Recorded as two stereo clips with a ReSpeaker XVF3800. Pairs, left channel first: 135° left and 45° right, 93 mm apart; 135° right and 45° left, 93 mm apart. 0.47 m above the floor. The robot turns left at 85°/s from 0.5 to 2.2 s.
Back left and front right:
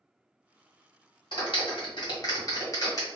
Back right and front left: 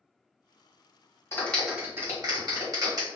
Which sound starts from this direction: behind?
A clap, at 1.3 s.